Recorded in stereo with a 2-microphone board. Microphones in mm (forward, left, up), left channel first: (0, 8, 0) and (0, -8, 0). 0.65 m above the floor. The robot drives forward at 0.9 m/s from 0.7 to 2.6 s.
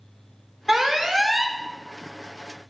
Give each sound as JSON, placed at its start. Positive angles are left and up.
{"t": 0.7, "sound": "an alarm", "side_deg": -15, "distance_m": 1.1}